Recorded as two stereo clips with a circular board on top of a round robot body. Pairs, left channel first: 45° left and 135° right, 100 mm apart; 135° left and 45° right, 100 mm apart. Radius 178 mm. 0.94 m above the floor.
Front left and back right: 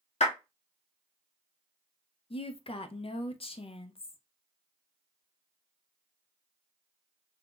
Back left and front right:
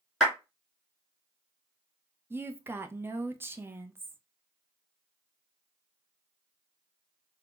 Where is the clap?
45° left, 2 m.